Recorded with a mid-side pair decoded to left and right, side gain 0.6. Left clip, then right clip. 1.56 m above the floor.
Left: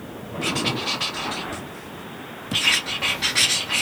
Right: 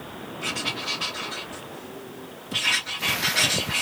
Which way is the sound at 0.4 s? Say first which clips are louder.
Left 4 dB; 45° left.